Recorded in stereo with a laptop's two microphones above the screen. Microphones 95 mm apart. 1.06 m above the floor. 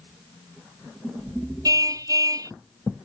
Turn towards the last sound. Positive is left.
turn(degrees=-40)  # may be behind; listen again after turning